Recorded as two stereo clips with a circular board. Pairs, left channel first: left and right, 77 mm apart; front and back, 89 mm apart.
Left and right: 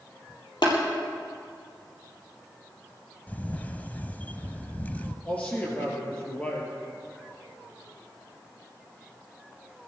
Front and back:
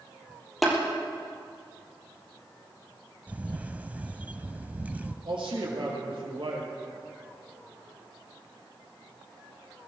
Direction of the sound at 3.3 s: 130° left.